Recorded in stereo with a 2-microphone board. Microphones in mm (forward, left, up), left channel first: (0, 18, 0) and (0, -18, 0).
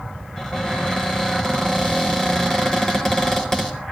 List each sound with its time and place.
0.4 s a cupboard door: 15° left (ahead or behind), 4 m